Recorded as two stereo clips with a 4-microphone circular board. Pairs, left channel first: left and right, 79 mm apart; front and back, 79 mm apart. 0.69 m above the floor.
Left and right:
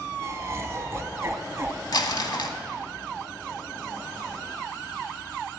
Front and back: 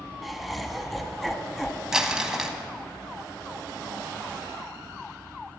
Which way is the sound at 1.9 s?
95° left.